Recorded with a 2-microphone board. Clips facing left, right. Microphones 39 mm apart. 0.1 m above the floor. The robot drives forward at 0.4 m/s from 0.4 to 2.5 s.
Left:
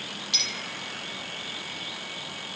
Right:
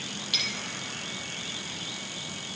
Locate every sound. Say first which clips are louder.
0.3 s a clink: right 1 dB; 20° right (ahead or behind), 2.5 m